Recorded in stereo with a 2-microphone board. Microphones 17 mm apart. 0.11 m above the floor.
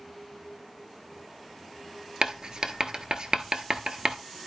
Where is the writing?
50° right (ahead or behind), 0.9 m.